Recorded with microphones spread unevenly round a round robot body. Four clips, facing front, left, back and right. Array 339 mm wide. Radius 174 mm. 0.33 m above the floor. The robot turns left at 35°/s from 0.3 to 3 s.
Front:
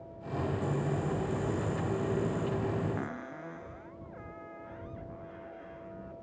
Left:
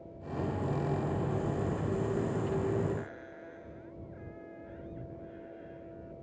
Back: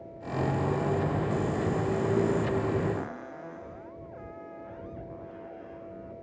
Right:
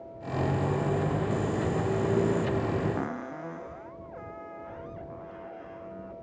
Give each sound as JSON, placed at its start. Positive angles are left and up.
{"t": 3.0, "sound": "a cupboard door", "azimuth_deg": -80}